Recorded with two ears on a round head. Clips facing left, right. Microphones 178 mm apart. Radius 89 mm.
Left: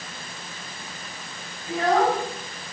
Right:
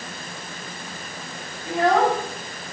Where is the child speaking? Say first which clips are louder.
Right 2 dB; 60° right (ahead or behind), 5.5 m.